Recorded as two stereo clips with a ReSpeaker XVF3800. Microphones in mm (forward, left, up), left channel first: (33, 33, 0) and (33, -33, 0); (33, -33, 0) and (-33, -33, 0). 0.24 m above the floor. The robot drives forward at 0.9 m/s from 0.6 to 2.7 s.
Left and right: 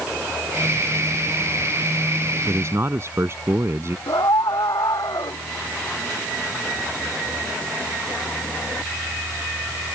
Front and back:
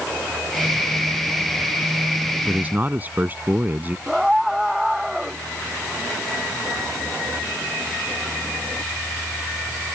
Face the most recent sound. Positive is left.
turn(degrees=95)